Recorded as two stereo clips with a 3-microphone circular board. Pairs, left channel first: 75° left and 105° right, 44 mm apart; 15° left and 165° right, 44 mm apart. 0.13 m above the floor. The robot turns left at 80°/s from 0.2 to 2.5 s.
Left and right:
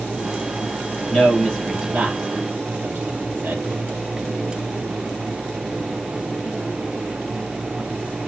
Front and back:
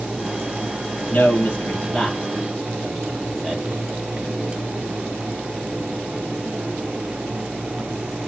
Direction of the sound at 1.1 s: 25° left.